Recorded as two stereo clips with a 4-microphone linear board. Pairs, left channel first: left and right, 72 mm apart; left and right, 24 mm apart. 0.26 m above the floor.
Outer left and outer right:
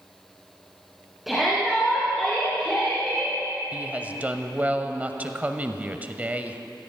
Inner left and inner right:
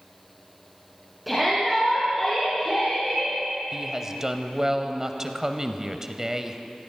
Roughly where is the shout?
Centre.